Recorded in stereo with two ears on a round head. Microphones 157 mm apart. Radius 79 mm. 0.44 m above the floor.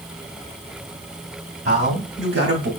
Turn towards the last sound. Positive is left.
turn(degrees=-70)  # may be behind; listen again after turning